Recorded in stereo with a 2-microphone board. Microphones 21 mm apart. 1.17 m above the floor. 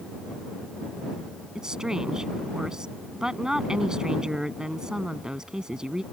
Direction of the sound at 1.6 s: 40° right (ahead or behind).